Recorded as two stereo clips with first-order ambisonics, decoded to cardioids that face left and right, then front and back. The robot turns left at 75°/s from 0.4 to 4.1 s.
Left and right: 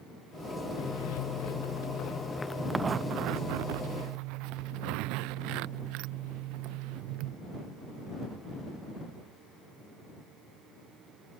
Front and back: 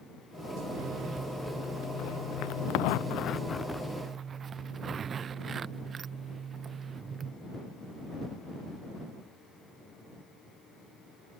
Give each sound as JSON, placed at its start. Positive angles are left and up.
{"t": 0.8, "sound": "a zipper", "azimuth_deg": 135}